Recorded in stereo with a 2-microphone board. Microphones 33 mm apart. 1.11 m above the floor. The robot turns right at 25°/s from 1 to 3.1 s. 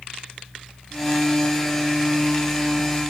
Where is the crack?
I don't hear a crack.